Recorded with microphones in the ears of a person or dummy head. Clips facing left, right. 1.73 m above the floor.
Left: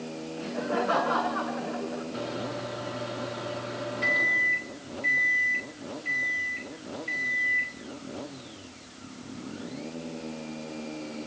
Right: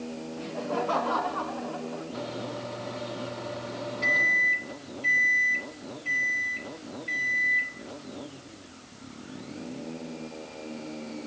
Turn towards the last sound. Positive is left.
turn(degrees=20)  # may be behind; listen again after turning